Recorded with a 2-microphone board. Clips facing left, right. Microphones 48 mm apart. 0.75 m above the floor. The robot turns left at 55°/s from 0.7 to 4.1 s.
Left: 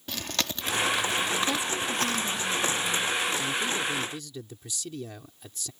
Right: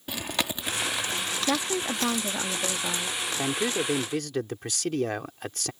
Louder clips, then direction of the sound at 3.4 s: Right 1 dB; 60° right.